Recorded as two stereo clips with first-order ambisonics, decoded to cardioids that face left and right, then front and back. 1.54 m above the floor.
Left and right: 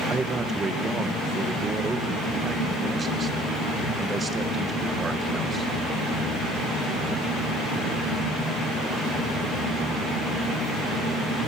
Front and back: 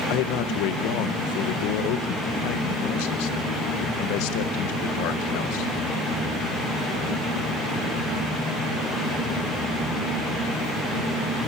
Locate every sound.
0.1 s a man speaking: 15° right, 1.3 m